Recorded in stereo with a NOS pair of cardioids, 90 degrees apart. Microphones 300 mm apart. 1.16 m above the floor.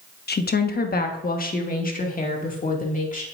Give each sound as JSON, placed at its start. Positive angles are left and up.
{"t": 0.3, "sound": "a woman speaking", "azimuth_deg": 35, "distance_m": 1.1}